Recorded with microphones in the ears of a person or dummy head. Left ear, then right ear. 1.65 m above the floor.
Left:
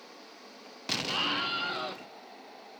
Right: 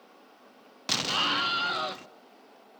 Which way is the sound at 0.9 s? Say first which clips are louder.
Right 3 dB; 20° right (ahead or behind).